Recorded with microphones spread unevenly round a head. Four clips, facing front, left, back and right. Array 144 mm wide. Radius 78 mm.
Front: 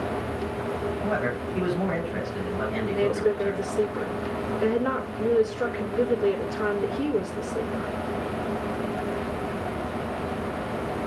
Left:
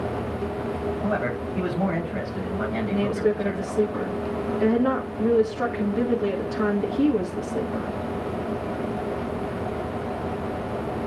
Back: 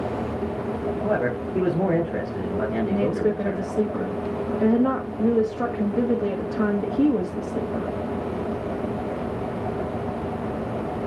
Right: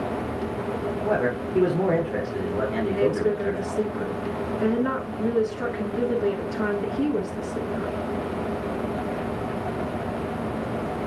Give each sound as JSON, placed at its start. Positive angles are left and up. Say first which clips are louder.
{"t": 1.0, "sound": "a man speaking", "louder": "right 4 dB, back 5 dB", "azimuth_deg": -145, "distance_m": 4.0}
{"t": 2.9, "sound": "a woman speaking", "louder": "even, front 1 dB", "azimuth_deg": 165, "distance_m": 1.8}